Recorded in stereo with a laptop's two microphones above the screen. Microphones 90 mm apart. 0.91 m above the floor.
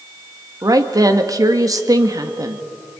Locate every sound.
0.6 s a woman speaking: 45° right (ahead or behind), 1.7 m